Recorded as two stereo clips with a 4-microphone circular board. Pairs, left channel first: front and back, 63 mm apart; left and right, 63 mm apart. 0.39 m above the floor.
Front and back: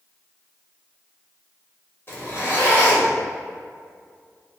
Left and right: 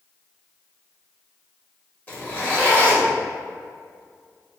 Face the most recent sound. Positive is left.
turn(degrees=35)